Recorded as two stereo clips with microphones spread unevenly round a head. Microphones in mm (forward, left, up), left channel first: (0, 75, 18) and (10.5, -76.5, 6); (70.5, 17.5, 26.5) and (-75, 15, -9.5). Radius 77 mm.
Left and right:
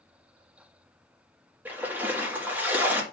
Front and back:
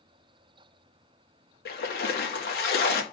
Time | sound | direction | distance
1.6 | a splash | 5° right | 1.4 m